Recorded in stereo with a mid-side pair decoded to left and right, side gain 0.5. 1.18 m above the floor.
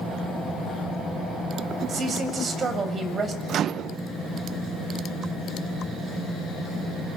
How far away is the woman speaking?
About 7 m.